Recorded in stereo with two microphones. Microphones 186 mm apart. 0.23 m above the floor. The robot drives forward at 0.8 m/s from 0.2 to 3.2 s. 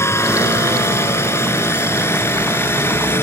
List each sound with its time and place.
0.0 s a helicopter: 15° left (ahead or behind)